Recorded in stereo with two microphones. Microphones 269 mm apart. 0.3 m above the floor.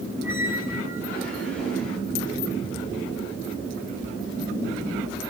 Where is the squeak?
5° left (ahead or behind), 6 m.